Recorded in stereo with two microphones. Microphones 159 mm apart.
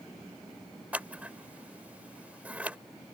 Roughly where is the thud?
I don't hear a thud.